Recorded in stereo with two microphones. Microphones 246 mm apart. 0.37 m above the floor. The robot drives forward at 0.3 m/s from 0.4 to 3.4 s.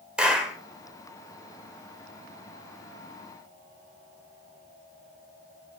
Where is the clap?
5° right (ahead or behind), 0.8 m.